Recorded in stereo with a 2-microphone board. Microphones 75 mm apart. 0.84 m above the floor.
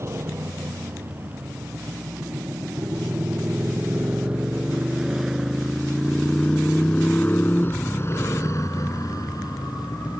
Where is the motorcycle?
35° right (ahead or behind); by 10.2 s 65° left (ahead or behind).